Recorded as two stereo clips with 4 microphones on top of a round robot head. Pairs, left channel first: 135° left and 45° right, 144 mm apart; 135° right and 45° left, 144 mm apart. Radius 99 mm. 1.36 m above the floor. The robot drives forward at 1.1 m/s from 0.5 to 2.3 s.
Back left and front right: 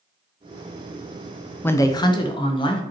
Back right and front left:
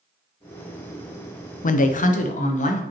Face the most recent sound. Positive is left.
turn(degrees=-170)